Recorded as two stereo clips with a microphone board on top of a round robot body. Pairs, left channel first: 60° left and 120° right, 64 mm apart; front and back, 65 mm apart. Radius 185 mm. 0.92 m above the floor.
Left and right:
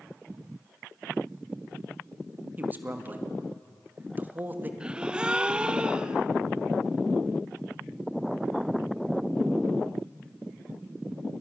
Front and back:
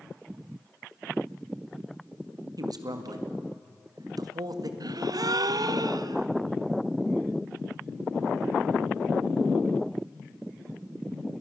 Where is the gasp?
165° left, 0.9 m.